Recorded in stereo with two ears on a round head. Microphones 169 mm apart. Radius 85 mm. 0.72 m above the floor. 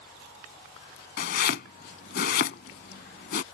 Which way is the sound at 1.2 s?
55° left (ahead or behind).